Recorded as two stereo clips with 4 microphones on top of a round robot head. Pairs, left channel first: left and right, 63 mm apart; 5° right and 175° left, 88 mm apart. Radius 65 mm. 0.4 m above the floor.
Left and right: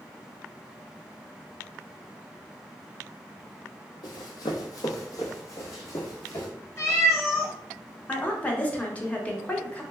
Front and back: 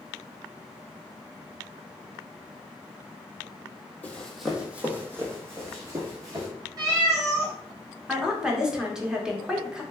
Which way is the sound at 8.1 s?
110° left.